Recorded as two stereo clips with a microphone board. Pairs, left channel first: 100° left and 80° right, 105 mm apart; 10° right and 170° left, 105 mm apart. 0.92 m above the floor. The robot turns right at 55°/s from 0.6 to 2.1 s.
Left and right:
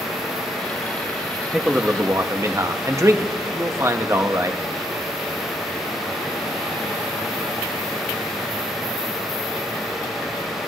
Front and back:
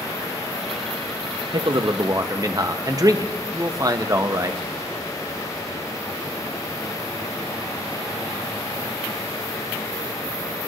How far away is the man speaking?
About 0.8 m.